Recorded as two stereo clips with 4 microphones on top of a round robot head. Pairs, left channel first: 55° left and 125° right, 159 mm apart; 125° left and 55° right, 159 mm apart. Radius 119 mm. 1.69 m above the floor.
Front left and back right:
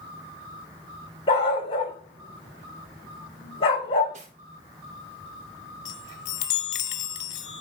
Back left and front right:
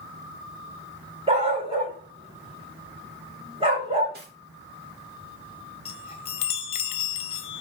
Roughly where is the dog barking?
Ahead.